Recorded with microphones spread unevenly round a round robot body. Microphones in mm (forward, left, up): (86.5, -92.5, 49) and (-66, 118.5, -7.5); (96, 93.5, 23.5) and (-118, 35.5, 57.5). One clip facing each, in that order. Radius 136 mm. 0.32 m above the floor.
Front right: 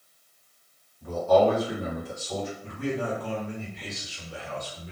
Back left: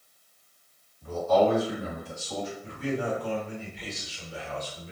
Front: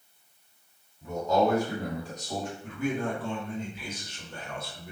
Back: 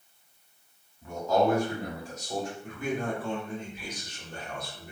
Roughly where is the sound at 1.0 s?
Ahead right.